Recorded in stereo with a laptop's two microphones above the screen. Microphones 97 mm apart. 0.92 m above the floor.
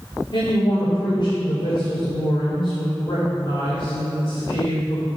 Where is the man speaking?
55° left (ahead or behind), 2.5 m.